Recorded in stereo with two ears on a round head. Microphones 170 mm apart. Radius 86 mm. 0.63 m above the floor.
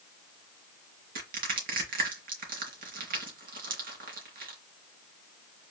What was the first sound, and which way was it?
Crushing, 50° right (ahead or behind).